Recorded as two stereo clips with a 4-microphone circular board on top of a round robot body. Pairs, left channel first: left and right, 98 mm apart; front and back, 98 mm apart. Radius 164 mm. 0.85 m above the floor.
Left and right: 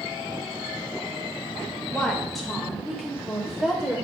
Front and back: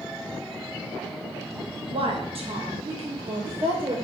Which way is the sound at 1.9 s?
175° left.